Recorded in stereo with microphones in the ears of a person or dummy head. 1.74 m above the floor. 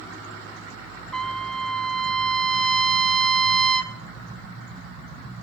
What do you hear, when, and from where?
1.1 s a trumpet: centre (ahead or behind), 0.8 m